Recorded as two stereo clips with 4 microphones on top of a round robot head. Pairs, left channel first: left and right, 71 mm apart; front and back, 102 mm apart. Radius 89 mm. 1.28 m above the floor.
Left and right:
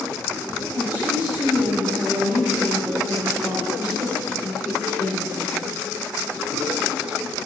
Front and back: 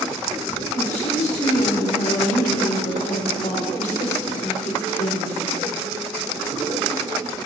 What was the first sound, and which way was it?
A woman speaking, 15° right.